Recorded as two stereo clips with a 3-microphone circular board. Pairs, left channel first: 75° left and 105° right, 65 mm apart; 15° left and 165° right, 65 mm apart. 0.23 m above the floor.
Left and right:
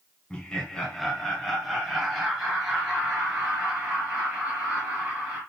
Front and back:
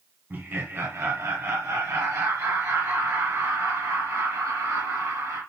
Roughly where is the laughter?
Behind left.